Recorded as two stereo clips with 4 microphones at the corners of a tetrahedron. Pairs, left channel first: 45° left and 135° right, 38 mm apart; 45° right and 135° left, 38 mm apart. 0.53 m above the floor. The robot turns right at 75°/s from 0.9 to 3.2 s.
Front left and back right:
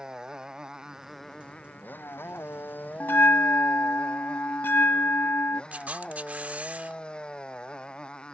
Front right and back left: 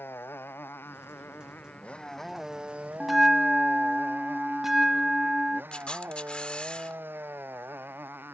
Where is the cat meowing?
No cat meowing in this recording.